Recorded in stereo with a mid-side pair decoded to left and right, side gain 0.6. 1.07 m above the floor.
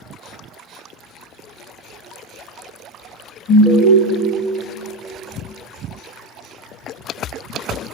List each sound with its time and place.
3.5 s an alarm: 55° left, 1.2 m